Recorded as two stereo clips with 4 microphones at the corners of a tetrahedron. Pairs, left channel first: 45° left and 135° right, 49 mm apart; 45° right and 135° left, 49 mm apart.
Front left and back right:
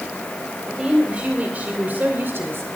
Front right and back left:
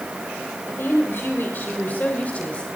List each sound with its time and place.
0.7 s a woman speaking: 65° right, 2.5 m; by 2.7 s 110° right, 2.5 m